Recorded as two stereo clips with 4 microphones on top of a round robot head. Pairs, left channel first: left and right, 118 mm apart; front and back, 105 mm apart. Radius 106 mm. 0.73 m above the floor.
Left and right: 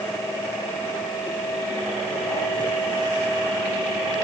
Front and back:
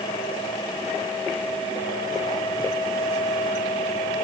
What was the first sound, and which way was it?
Only background noise.